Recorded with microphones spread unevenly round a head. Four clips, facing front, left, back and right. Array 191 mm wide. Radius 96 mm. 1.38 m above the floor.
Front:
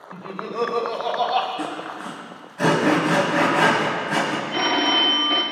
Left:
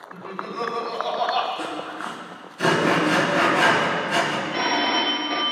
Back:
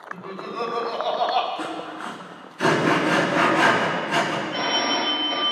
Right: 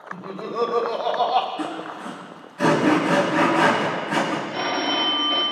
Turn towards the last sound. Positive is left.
turn(degrees=20)